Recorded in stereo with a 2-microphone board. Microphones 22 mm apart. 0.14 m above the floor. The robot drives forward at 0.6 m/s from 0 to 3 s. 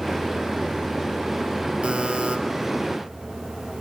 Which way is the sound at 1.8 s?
65° right (ahead or behind).